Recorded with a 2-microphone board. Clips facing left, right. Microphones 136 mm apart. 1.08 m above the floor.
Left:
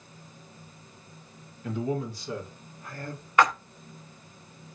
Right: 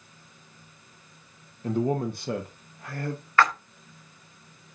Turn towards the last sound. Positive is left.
turn(degrees=20)  # may be behind; listen again after turning